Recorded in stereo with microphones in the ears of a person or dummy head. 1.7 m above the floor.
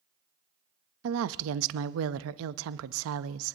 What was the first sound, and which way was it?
A woman speaking, 80° right.